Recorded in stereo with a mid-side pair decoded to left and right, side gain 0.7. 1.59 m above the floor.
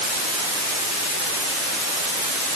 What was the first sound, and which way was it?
Only background noise.